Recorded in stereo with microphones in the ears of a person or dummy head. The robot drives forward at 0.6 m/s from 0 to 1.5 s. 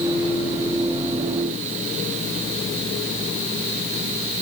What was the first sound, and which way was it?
Only background noise.